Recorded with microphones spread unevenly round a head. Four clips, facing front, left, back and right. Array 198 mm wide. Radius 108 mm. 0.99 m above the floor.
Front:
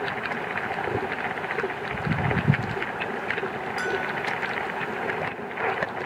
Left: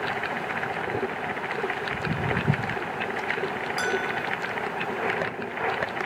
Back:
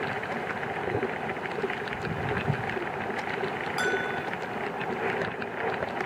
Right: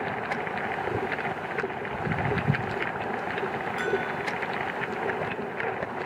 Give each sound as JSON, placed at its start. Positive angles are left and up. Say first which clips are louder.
{"t": 1.9, "sound": "footsteps", "louder": "even, front 4 dB", "azimuth_deg": 15}
{"t": 3.8, "sound": "a bell", "louder": "left 1 dB, even", "azimuth_deg": -175}